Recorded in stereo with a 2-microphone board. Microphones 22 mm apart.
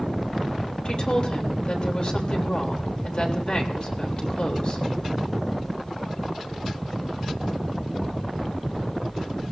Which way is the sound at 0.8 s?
50° left (ahead or behind).